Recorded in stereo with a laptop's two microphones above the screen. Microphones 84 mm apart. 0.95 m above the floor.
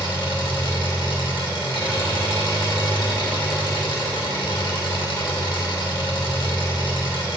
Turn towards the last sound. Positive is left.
turn(degrees=80)